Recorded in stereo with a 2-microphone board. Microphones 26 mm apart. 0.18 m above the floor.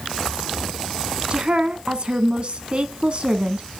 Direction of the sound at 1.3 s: 40° right (ahead or behind).